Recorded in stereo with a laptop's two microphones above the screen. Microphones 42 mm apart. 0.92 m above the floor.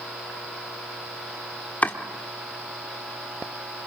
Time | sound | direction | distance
1.8 | chopping | 40° left (ahead or behind) | 1.4 m